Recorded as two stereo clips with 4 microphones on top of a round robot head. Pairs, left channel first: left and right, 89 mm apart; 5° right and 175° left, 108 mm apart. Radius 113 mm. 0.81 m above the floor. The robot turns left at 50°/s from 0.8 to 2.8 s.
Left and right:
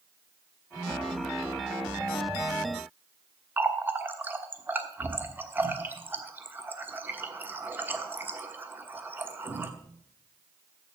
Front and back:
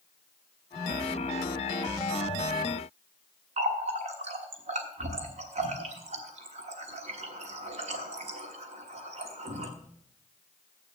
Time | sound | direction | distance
3.6 | a running tap | 160° right | 1.2 m